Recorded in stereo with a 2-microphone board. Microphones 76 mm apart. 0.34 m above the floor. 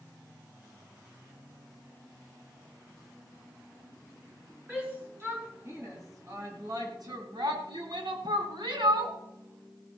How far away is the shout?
About 3.5 m.